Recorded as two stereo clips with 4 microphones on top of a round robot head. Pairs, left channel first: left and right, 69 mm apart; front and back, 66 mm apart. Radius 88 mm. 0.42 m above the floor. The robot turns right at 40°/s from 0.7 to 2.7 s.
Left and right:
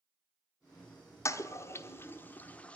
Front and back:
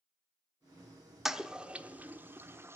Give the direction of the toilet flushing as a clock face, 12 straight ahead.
9 o'clock.